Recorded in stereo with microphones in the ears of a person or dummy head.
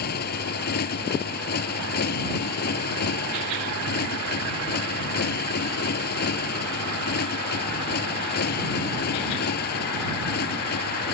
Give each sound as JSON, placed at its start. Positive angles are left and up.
{"t": 0.0, "sound": "a motorcycle", "side_deg": 50}